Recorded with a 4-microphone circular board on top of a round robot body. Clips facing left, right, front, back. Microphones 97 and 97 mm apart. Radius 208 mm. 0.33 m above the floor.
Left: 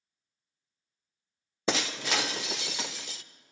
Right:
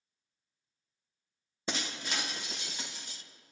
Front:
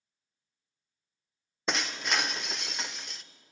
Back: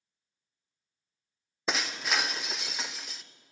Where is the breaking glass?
90° left, 0.6 m.